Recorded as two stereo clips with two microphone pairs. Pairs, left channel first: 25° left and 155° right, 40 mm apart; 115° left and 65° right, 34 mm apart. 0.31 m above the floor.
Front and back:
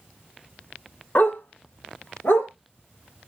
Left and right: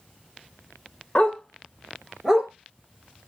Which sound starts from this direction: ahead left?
A dog barking, at 1.1 s.